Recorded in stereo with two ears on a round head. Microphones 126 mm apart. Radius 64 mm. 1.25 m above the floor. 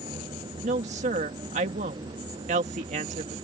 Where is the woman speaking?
50° right (ahead or behind).